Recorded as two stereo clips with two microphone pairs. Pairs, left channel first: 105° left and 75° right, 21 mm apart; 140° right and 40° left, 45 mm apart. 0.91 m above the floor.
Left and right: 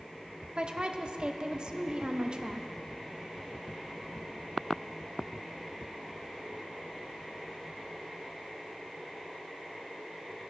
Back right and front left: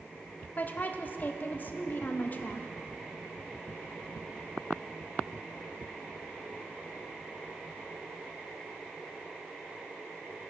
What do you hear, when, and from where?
0.6 s a woman speaking: 105° right, 0.6 m